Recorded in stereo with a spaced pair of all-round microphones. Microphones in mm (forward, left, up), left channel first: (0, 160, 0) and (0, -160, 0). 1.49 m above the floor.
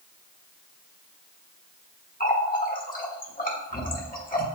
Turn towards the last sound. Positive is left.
turn(degrees=25)  # may be behind; listen again after turning